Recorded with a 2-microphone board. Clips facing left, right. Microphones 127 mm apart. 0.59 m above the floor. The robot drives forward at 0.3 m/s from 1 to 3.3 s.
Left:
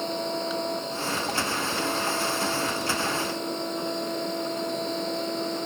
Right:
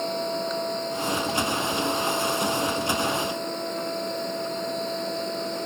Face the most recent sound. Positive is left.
No sound to turn to.